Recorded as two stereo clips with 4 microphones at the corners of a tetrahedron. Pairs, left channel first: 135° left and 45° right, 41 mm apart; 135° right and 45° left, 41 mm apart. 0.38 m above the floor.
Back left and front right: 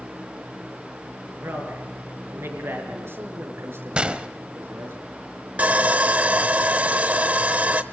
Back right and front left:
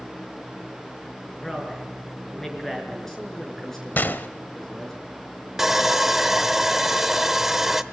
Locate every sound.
1.4 s a man speaking: 55° right, 5.5 m
4.0 s a gunshot: 100° right, 0.8 m
5.6 s sawing: 30° right, 0.9 m